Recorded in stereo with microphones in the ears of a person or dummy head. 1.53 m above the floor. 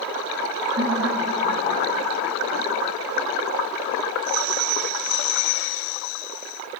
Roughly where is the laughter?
Right.